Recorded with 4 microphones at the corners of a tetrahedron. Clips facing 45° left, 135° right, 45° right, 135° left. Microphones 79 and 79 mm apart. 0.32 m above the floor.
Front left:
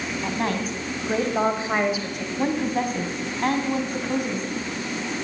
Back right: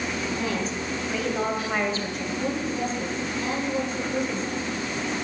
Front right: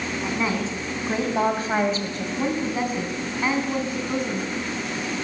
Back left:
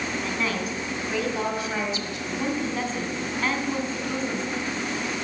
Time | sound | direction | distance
0.2 | a woman speaking | 20° left | 3.5 m
2.4 | a woman speaking | 30° left | 3 m